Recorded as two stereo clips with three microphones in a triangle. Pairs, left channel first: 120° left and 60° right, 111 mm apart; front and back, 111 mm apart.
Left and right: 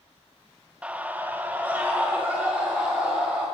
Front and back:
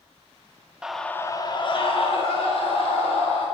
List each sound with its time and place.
0.8 s a scream: 115° right, 0.8 m; by 3.5 s 15° left, 3 m